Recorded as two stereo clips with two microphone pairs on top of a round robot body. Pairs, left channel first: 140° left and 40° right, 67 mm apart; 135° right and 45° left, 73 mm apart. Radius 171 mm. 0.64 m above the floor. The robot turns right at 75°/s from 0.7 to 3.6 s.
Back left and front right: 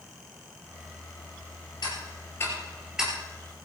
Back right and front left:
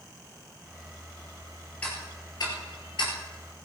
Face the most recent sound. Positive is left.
turn(degrees=-75)